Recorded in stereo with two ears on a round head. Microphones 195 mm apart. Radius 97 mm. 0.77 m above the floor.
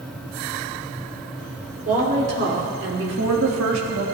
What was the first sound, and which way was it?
A woman speaking, 40° right (ahead or behind).